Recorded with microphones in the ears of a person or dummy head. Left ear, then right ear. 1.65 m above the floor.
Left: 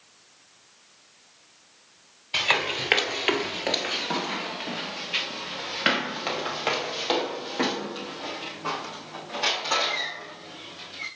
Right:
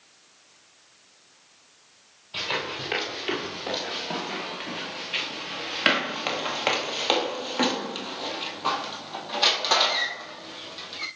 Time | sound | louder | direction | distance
2.3 | running footsteps | left 5 dB | 40° left (ahead or behind) | 2 m